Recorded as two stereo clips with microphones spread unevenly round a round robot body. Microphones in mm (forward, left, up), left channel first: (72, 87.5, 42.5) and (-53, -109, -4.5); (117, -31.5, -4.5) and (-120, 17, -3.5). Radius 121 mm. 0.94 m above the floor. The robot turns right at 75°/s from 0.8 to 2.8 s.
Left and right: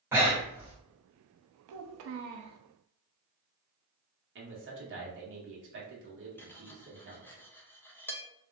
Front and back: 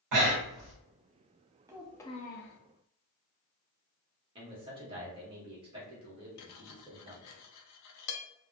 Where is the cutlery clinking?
20° right, 0.6 m.